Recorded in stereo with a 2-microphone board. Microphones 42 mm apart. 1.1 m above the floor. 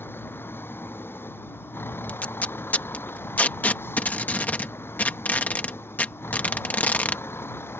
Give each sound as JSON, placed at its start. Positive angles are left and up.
{"t": 0.0, "sound": "a vehicle", "side_deg": 65}
{"t": 2.1, "sound": "tape being pulled", "side_deg": 45}